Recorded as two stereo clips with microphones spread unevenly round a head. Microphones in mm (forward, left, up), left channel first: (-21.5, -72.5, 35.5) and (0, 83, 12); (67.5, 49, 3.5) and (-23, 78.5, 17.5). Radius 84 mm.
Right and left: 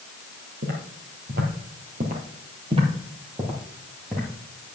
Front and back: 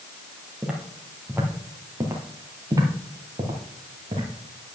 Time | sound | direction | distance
0.6 | footsteps | 95° left | 2 m